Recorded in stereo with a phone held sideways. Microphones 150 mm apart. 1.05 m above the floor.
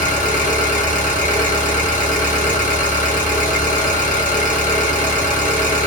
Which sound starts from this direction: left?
An engine running, at 0.0 s.